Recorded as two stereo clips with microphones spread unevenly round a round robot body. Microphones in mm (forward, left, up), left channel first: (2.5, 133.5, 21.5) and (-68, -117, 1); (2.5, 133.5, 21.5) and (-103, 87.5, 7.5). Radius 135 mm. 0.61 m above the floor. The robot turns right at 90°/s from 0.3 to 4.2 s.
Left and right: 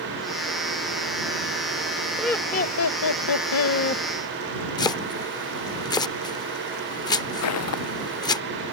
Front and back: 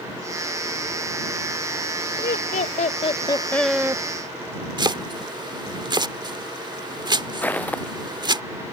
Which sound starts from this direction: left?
Footsteps, at 7.4 s.